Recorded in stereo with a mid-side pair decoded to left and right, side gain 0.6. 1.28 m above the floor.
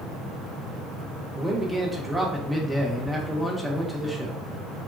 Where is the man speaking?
5° right, 1.3 m.